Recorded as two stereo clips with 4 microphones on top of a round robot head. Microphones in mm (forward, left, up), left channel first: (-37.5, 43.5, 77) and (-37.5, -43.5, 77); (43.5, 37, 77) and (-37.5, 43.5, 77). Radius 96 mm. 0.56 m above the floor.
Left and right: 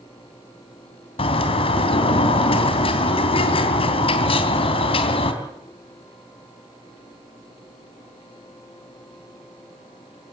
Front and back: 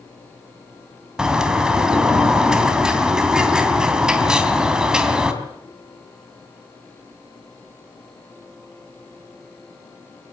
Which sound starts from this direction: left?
A bird, at 1.2 s.